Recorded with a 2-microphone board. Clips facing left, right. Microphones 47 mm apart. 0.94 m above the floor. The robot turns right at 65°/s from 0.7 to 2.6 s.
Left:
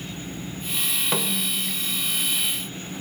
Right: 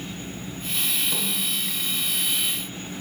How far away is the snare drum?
About 1.6 m.